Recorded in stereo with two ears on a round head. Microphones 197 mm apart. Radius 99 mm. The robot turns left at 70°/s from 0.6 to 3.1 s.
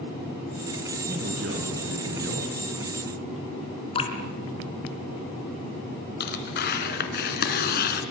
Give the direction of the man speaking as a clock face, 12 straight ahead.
1 o'clock.